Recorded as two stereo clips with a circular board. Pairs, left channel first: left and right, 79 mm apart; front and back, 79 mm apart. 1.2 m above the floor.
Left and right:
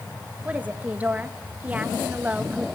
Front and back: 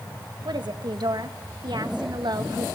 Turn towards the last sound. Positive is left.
turn(degrees=-160)